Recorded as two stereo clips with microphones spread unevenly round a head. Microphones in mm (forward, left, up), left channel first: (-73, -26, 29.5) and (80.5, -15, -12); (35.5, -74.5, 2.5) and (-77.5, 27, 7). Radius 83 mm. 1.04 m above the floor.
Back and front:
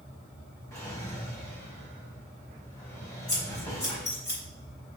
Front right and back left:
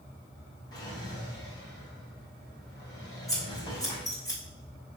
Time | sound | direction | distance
0.7 | a drawer | 105° right | 3.5 m
3.3 | scissors | 110° right | 4 m